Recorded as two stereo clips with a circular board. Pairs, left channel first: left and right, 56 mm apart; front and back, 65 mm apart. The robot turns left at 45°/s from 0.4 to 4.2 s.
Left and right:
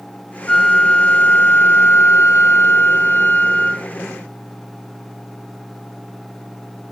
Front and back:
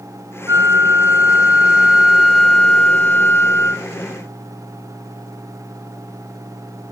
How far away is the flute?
About 1.7 m.